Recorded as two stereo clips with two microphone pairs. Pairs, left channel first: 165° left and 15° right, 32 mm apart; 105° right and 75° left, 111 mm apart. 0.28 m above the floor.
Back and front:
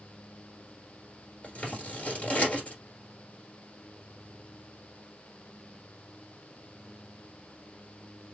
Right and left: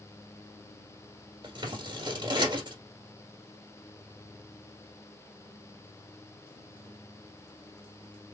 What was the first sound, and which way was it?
Scissors, 125° left.